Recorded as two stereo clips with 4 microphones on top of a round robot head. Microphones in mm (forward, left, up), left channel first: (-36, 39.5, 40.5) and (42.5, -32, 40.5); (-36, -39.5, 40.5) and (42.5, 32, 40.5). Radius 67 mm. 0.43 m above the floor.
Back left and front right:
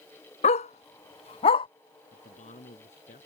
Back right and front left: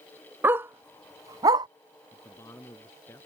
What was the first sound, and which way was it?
A dog barking, 115° left.